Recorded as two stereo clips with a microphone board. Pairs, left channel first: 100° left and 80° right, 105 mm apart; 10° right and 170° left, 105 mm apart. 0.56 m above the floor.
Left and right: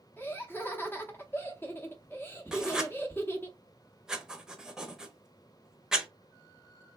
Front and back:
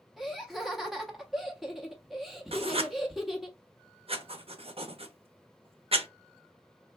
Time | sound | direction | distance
0.2 | laughter | 85° left | 0.6 m
2.5 | writing | 165° right | 0.5 m